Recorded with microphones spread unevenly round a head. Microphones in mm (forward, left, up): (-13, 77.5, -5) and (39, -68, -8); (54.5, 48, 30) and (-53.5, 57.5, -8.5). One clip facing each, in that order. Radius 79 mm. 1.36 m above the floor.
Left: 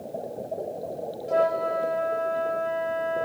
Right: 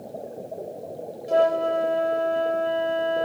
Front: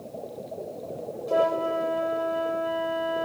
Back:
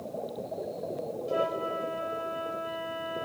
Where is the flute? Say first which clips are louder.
Right 3 dB, front 7 dB; 20° right.